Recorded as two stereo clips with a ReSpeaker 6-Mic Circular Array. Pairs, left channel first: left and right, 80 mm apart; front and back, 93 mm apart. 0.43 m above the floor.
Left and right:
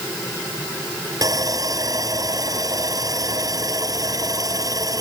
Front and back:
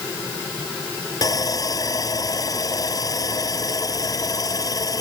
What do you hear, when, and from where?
1.2 s sawing: 50° right